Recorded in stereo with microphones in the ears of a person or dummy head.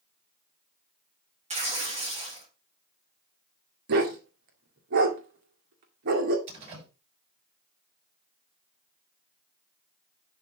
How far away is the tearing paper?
About 2 m.